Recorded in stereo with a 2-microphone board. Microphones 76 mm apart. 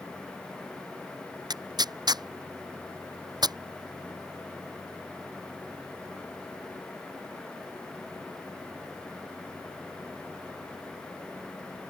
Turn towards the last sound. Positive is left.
turn(degrees=-70)  # may be behind; listen again after turning